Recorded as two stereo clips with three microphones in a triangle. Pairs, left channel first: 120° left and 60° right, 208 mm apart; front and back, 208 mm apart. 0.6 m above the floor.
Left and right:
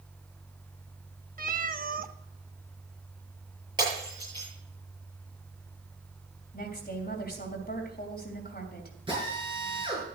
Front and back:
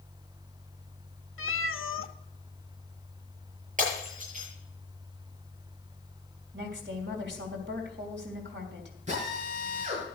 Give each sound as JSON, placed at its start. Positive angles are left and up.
{"t": 1.4, "sound": "a cat meowing", "azimuth_deg": -10, "distance_m": 0.6}
{"t": 3.8, "sound": "breaking glass", "azimuth_deg": -130, "distance_m": 8.0}
{"t": 6.5, "sound": "a woman speaking", "azimuth_deg": 160, "distance_m": 3.0}
{"t": 9.1, "sound": "a drill", "azimuth_deg": -125, "distance_m": 6.5}